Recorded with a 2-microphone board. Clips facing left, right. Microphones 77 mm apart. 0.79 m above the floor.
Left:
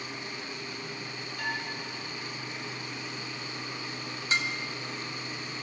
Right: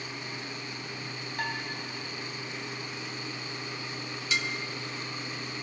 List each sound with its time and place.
1.4 s dishes clattering: 55° right (ahead or behind), 3.5 m
4.3 s dishes clattering: 35° left (ahead or behind), 0.9 m